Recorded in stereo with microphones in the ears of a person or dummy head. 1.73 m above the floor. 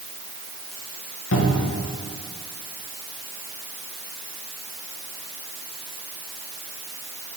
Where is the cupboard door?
65° left (ahead or behind), 1.4 m.